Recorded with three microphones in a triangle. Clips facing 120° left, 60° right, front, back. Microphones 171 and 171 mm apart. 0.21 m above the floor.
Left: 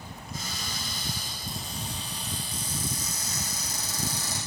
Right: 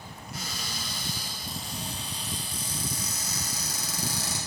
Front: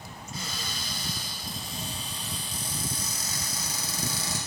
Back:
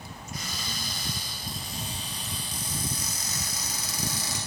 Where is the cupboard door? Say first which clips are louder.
Even, even; 60° right, 1.9 m.